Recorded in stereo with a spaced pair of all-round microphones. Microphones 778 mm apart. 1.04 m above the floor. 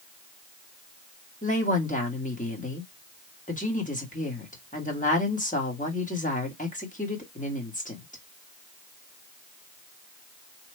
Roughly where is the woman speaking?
Centre.